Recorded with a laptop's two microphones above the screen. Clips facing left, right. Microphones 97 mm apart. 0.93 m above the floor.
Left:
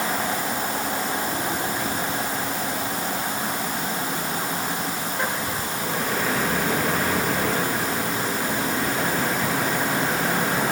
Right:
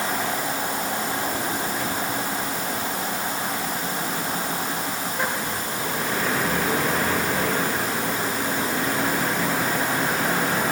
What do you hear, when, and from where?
Only background noise.